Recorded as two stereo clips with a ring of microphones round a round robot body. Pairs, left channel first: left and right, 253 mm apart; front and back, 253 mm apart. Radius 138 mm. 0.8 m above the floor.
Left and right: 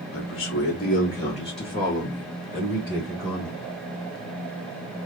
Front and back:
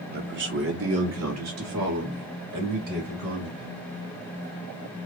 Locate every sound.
0.1 s a man speaking: 130° left, 1.0 m; by 3.7 s 175° left, 3 m